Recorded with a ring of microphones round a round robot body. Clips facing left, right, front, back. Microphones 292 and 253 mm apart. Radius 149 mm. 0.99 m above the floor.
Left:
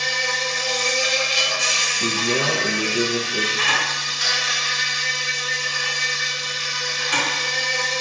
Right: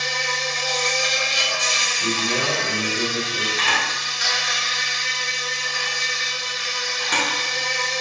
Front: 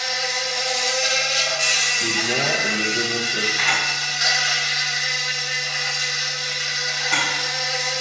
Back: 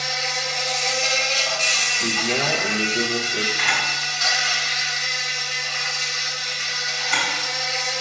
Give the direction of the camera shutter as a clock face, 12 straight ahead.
2 o'clock.